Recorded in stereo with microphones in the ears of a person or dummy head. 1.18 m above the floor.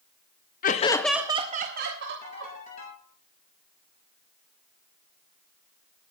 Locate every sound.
0.6 s laughter: 40° left (ahead or behind), 0.7 m; by 2.5 s 60° right (ahead or behind), 1.5 m
2.2 s a ringtone: 40° left (ahead or behind), 7 m